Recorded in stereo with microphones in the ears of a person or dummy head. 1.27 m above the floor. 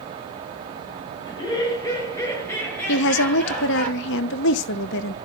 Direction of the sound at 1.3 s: 25° left (ahead or behind).